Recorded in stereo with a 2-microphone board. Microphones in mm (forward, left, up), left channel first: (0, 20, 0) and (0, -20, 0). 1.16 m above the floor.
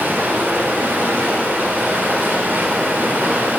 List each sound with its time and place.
0.0 s running water: 60° right (ahead or behind), 2.5 m